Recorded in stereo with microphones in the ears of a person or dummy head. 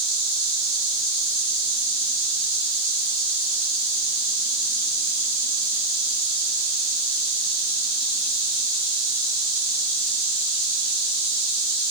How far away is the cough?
I don't hear a cough.